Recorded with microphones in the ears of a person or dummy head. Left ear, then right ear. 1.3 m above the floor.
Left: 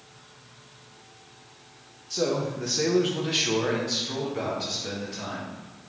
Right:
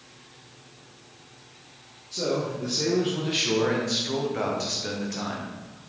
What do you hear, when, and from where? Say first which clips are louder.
2.1 s a man speaking: left 1 dB; 65° left (ahead or behind), 0.7 m; by 5.9 s 45° right (ahead or behind), 1.5 m